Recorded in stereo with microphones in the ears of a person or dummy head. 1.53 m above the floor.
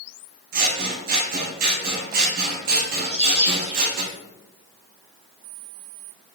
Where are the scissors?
50° right (ahead or behind), 0.7 m.